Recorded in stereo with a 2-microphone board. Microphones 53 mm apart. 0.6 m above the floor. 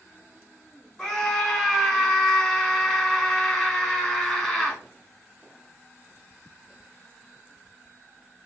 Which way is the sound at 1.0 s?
15° left (ahead or behind).